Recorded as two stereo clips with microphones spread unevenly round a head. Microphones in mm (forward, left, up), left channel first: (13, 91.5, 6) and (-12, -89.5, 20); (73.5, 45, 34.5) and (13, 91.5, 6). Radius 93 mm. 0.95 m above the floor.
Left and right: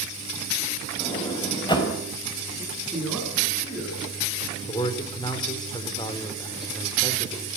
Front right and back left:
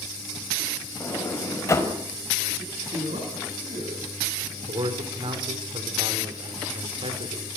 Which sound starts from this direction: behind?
A man speaking, at 2.6 s.